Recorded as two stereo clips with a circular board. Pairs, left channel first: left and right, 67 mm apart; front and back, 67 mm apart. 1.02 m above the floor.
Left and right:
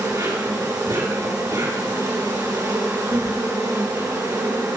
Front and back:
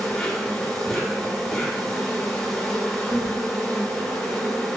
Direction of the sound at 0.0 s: 80° right.